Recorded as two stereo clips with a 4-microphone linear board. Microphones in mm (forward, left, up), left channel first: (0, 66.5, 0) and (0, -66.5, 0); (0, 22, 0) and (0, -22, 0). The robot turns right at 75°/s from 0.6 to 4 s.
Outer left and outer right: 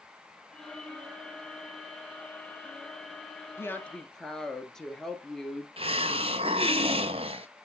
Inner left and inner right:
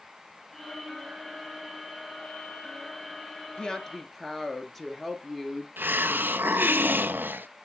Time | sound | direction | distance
3.6 | a woman speaking | 140° left | 1.6 m
5.8 | a hiss | 50° right (ahead or behind) | 0.6 m